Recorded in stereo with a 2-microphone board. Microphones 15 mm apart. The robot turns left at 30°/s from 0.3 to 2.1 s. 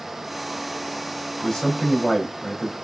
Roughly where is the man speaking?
Left.